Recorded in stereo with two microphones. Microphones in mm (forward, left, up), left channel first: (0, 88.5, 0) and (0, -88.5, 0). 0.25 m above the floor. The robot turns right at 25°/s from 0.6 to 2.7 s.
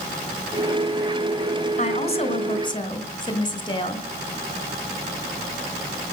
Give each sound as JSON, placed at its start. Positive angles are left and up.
{"t": 1.8, "sound": "a woman speaking", "side_deg": 40, "distance_m": 2.5}